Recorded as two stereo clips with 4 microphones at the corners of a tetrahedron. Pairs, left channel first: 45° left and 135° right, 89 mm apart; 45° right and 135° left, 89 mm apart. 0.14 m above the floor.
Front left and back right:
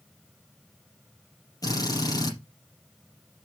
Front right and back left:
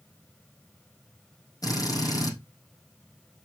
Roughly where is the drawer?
I don't hear a drawer.